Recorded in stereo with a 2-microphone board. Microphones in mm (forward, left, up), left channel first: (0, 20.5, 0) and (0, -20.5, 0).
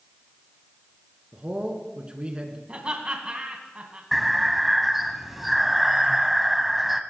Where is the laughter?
30° right (ahead or behind), 1.7 m.